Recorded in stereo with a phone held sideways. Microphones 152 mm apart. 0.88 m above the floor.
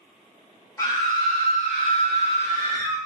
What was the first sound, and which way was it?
A scream, 20° left (ahead or behind).